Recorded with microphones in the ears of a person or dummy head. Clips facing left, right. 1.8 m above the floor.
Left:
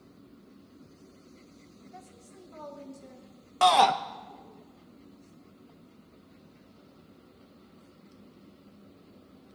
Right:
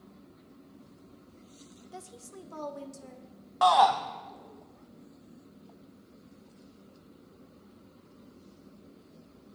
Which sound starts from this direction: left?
A shout, at 3.6 s.